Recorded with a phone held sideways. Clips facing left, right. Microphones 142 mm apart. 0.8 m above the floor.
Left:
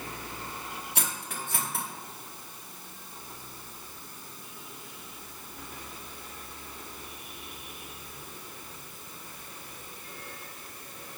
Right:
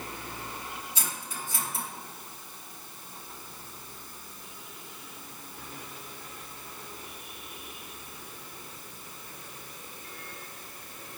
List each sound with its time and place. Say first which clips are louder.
0.9 s cutlery clinking: left 2 dB; 65° left (ahead or behind), 1.0 m